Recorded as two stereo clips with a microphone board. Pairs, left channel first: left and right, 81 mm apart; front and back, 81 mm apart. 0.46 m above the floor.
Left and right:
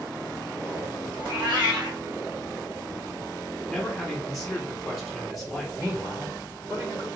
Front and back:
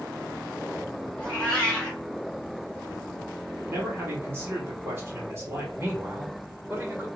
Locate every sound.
1.2 s a cat meowing: 75° right, 1.9 m
3.7 s a man speaking: straight behind, 1.5 m
5.8 s a man speaking: 135° right, 1.9 m